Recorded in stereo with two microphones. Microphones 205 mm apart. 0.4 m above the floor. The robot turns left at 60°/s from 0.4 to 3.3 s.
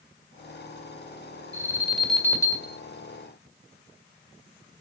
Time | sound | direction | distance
1.5 | an alarm | 150° right | 1.8 m